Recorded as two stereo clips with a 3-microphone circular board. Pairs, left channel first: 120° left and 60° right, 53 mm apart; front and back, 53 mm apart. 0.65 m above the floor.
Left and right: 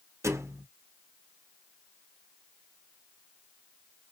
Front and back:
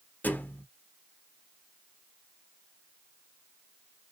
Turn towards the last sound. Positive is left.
turn(degrees=-50)